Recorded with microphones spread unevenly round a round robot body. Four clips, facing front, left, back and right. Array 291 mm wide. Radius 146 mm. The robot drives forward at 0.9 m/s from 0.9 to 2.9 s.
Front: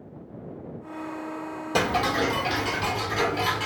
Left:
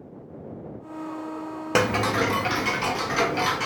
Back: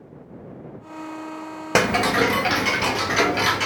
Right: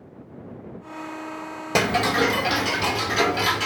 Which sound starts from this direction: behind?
Ticking, at 1.8 s.